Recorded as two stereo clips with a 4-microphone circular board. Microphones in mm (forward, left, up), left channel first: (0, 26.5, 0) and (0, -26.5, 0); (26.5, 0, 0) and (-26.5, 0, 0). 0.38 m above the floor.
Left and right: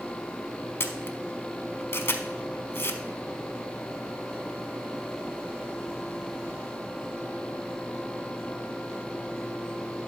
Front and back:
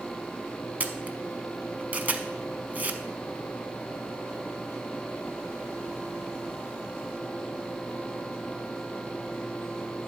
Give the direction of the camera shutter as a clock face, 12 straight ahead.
8 o'clock.